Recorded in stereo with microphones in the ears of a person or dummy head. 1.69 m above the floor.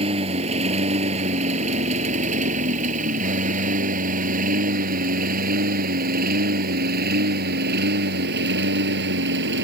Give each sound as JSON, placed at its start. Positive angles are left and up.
{"t": 0.0, "sound": "a lawn mower", "side_deg": -30}